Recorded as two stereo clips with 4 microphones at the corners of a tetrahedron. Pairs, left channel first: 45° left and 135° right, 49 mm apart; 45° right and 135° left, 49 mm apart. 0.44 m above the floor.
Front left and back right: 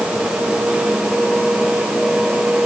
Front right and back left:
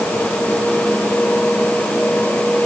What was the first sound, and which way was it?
Only background noise.